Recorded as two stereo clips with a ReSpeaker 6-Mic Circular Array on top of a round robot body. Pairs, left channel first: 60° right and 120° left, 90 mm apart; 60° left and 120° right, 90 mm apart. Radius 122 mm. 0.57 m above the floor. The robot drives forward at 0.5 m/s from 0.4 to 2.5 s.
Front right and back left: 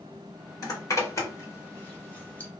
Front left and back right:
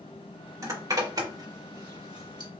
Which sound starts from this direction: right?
A zipper, at 0.6 s.